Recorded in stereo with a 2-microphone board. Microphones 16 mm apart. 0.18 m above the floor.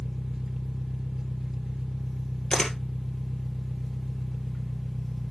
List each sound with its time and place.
0.0 s an engine running: 30° right (ahead or behind), 1.1 m
2.5 s a camera shutter: 45° left (ahead or behind), 2.0 m